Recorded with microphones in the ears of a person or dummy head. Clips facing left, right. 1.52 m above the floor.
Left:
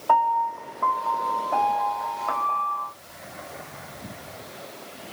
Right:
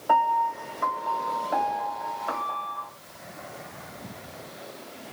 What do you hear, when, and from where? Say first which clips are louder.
0.1 s a piano: left 1 dB; 10° right (ahead or behind), 0.6 m